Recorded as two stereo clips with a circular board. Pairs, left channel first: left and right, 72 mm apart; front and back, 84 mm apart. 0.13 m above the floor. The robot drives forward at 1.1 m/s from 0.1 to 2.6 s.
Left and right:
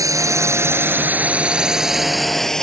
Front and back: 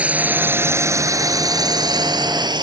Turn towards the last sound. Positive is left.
turn(degrees=170)